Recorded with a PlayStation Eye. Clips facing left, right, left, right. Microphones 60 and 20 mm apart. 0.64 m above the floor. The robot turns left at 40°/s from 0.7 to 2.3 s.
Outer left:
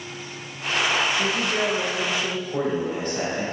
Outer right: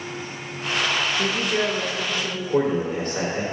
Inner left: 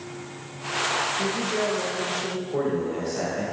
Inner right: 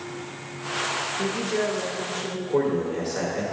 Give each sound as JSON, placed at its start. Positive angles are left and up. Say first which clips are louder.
{"t": 1.2, "sound": "a woman speaking", "louder": "even, even", "azimuth_deg": -155, "distance_m": 0.6}
{"t": 2.5, "sound": "a man speaking", "louder": "outer right 5 dB, inner right 4 dB", "side_deg": -60, "distance_m": 1.8}